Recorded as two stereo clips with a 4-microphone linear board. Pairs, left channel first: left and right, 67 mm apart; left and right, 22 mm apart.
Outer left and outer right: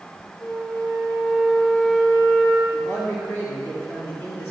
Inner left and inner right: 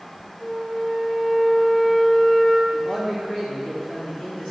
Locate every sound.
0.4 s a flute: 55° left (ahead or behind), 3 m
2.7 s a man speaking: 40° left (ahead or behind), 2.5 m